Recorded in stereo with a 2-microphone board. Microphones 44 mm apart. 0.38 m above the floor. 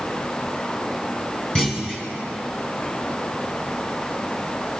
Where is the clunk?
20° left (ahead or behind), 1.4 m.